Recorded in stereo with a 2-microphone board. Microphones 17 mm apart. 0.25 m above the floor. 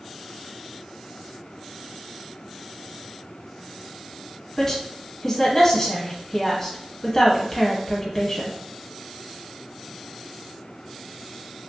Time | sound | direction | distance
4.6 | a woman speaking | 25° left (ahead or behind) | 1.1 m